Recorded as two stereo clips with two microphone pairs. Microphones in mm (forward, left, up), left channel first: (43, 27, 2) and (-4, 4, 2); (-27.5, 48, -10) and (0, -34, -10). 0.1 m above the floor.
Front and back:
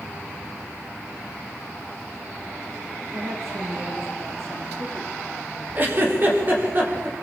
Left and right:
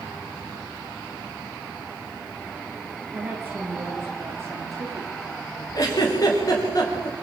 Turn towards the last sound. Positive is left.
turn(degrees=155)